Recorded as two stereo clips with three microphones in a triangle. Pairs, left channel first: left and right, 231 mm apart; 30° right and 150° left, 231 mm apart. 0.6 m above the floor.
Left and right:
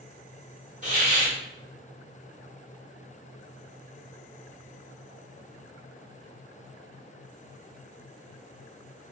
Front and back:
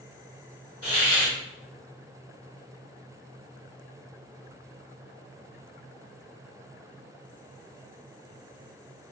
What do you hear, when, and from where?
0.8 s a hiss: 35° right, 1.3 m